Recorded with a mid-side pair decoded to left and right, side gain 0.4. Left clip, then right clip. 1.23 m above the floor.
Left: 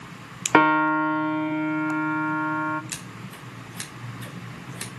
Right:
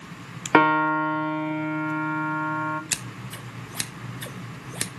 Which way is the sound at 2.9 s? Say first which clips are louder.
Right 5 dB; 60° right.